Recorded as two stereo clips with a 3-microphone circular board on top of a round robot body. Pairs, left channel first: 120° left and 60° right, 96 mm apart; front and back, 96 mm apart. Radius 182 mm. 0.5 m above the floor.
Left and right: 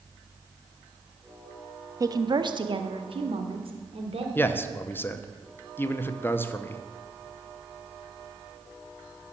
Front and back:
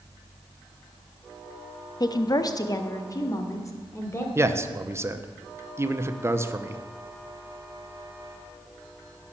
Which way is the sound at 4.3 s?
160° left.